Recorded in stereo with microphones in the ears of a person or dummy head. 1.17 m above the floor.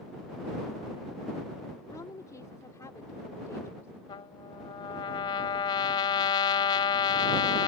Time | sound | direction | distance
1.9 | a woman speaking | 20° left (ahead or behind) | ?
4.1 | a trumpet | 25° left (ahead or behind) | ?